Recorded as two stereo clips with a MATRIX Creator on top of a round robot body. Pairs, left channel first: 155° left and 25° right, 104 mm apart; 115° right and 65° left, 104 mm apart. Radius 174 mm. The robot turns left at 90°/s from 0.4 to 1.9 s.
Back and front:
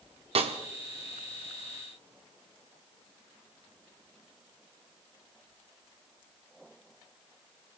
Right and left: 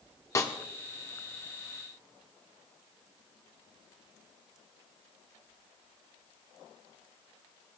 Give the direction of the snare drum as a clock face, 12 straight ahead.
2 o'clock.